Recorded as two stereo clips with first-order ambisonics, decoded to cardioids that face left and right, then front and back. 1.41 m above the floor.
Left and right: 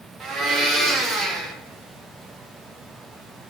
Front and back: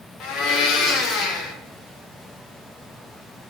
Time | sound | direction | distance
0.2 | a blender | 30° right | 0.5 m